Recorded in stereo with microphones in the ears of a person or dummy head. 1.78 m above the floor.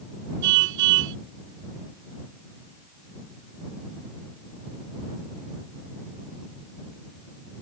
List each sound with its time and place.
0.4 s a car horn: 70° right (ahead or behind)